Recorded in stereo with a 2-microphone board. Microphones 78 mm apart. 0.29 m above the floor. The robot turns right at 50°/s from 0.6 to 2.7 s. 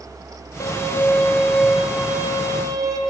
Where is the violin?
135° left, 0.6 m; by 3.0 s 120° right, 0.6 m.